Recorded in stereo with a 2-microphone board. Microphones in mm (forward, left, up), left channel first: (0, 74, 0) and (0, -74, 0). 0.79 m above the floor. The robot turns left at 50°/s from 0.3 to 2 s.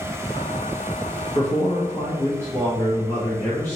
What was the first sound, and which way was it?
A man speaking, 60° left.